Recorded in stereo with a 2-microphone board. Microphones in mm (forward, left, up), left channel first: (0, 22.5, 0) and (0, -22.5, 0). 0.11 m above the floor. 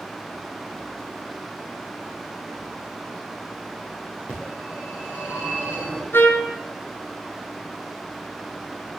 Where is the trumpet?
60° left (ahead or behind), 1.6 m.